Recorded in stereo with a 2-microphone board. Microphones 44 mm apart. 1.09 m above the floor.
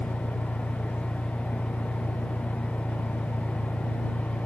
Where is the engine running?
70° left (ahead or behind).